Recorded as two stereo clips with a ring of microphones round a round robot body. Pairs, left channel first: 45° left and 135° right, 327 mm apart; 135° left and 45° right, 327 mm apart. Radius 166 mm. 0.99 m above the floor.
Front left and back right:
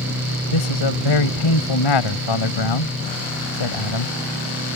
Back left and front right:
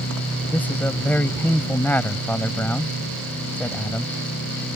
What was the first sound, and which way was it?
A man speaking, 50° left.